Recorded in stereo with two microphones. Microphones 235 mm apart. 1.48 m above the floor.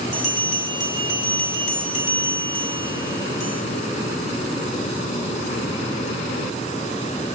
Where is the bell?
75° left (ahead or behind), 3.5 m.